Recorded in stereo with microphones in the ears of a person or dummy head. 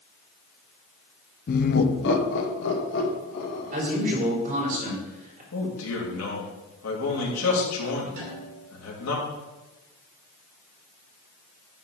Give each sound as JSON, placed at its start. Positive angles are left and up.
{"t": 1.5, "sound": "laughter", "side_deg": 45, "distance_m": 0.6}
{"t": 3.7, "sound": "a man speaking", "side_deg": -45, "distance_m": 3.5}
{"t": 5.5, "sound": "a man speaking", "side_deg": 85, "distance_m": 2.5}
{"t": 8.2, "sound": "a snare drum", "side_deg": -75, "distance_m": 4.0}